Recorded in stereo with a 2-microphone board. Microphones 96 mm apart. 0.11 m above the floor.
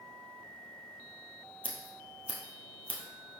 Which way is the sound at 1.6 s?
65° left (ahead or behind).